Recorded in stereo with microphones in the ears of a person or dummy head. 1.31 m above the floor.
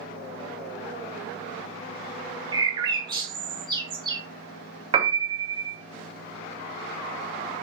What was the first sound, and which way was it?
A bird, 25° right (ahead or behind).